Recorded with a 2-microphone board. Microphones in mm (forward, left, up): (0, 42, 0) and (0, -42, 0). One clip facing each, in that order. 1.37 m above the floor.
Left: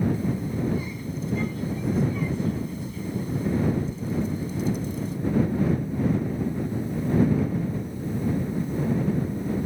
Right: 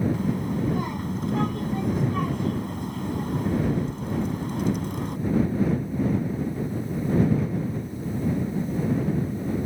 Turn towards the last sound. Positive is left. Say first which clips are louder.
# right 1 dB
turn(degrees=-70)  # may be behind; listen again after turning